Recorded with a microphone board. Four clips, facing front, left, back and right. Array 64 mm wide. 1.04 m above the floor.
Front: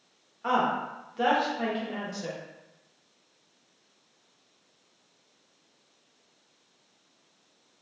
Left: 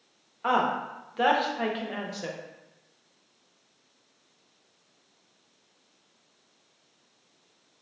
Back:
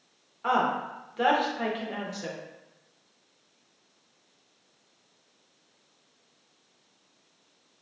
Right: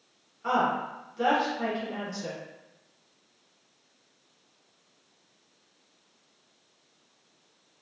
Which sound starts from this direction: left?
A woman speaking, at 0.4 s.